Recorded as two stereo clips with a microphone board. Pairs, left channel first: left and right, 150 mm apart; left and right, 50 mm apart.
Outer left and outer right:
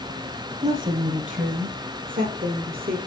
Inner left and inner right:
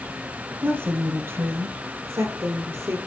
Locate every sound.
0.6 s a woman speaking: 50° right (ahead or behind), 3.5 m; by 3.0 s 65° right (ahead or behind), 4 m